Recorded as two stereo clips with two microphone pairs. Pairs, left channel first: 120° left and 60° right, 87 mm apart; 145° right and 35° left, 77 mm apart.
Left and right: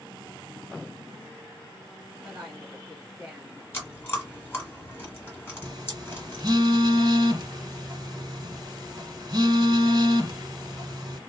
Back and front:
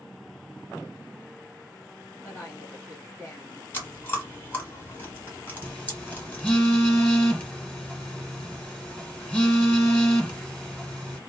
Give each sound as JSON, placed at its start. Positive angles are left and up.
{"t": 2.2, "sound": "a woman speaking", "azimuth_deg": -120, "distance_m": 1.2}
{"t": 3.7, "sound": "chewing", "azimuth_deg": 165, "distance_m": 1.5}
{"t": 5.6, "sound": "a phone buzzing", "azimuth_deg": -65, "distance_m": 1.0}